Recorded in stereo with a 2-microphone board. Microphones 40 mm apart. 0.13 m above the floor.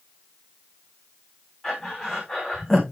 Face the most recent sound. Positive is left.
turn(degrees=10)  # may be behind; listen again after turning